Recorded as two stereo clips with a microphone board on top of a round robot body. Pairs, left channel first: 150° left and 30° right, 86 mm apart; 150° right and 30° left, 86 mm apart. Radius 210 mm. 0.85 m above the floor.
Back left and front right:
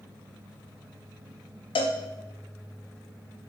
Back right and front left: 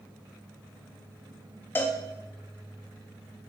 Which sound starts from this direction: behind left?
A cowbell, at 1.8 s.